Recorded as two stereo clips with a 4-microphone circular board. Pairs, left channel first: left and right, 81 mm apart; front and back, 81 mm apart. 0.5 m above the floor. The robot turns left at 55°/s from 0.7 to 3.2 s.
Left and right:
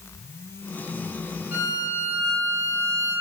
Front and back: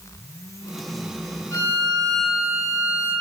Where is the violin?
30° right, 0.8 m; by 3.1 s 120° right, 0.8 m.